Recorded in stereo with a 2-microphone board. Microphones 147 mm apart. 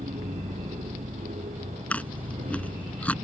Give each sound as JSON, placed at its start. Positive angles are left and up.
{"t": 0.0, "sound": "an aircraft", "side_deg": -60}
{"t": 1.9, "sound": "chewing", "side_deg": 10}